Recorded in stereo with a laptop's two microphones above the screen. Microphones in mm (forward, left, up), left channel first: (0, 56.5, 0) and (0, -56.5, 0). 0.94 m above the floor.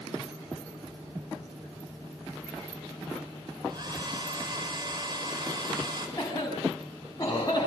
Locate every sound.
3.7 s a hair dryer: 40° right (ahead or behind), 4.5 m
6.2 s a cough: 30° left (ahead or behind), 6 m